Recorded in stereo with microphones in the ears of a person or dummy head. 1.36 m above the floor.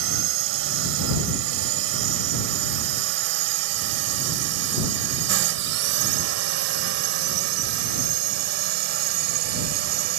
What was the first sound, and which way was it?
A drone, 80° right.